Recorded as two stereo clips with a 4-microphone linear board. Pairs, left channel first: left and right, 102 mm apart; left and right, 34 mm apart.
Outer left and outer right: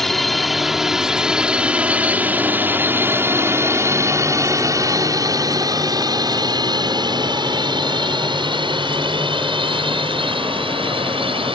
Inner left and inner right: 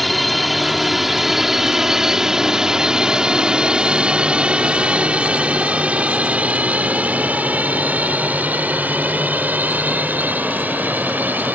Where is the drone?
5° left (ahead or behind); by 11.5 s 65° right (ahead or behind).